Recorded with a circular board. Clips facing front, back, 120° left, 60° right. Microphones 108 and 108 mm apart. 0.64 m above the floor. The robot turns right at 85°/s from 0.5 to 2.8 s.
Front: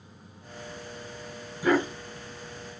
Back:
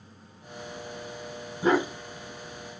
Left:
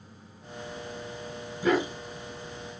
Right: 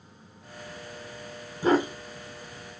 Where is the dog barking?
120° right, 1.1 m; by 2.8 s 20° right, 1.1 m.